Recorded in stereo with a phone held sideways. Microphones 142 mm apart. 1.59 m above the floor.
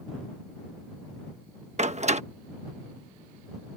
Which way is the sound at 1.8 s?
50° right (ahead or behind).